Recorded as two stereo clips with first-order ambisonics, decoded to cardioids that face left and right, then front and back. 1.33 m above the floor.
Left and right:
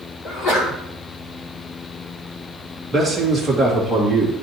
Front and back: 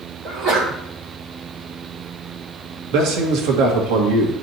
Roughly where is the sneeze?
Behind left.